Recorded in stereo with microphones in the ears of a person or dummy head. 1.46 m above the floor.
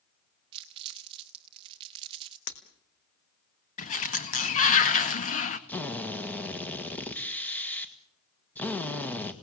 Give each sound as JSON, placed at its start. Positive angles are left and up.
{"t": 0.5, "sound": "crumpling", "side_deg": -25, "distance_m": 0.9}
{"t": 2.5, "sound": "breaking glass", "side_deg": 65, "distance_m": 2.5}
{"t": 3.8, "sound": "a sliding door", "side_deg": 40, "distance_m": 1.7}
{"t": 5.7, "sound": "a drill", "side_deg": 5, "distance_m": 1.7}